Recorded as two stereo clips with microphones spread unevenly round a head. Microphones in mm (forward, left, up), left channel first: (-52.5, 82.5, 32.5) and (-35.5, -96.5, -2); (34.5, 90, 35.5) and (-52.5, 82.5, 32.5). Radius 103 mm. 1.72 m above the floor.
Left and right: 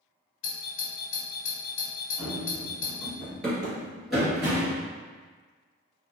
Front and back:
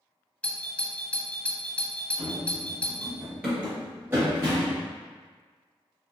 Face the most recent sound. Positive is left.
turn(degrees=180)